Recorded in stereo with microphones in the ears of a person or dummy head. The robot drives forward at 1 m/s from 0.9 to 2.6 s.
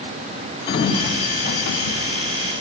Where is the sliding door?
30° left (ahead or behind), 1.2 m; by 2.6 s 40° left (ahead or behind), 0.9 m.